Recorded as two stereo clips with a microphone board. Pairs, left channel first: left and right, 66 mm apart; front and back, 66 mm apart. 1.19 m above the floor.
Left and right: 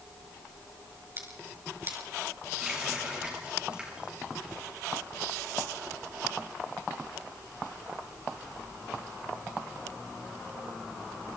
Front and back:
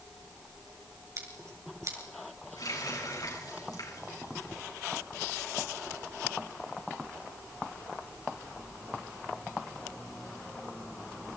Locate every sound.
1.2 s scissors: 140° right, 6 m
2.6 s a running tap: 15° right, 8.5 m